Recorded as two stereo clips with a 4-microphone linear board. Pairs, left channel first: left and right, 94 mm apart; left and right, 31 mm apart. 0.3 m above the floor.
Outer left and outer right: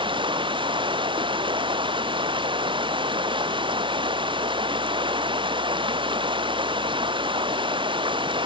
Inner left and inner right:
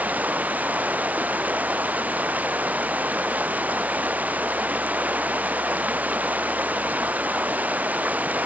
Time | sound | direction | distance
0.0 | running water | 60° right (ahead or behind) | ?